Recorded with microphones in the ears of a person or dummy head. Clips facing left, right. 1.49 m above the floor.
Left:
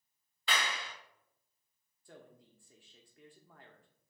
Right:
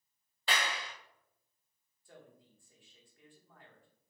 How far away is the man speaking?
About 0.7 m.